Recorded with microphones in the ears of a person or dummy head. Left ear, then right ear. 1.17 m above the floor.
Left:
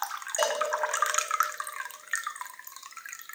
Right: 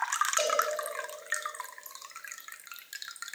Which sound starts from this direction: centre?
A cowbell, at 0.4 s.